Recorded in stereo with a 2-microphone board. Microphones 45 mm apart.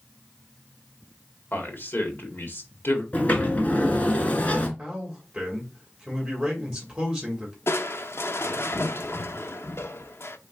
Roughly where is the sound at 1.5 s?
Left.